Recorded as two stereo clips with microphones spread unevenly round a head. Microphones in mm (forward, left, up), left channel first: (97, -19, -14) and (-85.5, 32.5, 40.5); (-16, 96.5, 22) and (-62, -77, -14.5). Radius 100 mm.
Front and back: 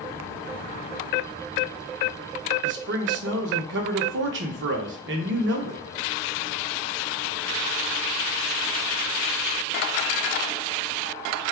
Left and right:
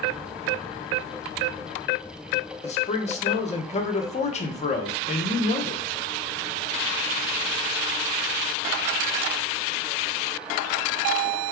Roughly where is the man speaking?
Behind left.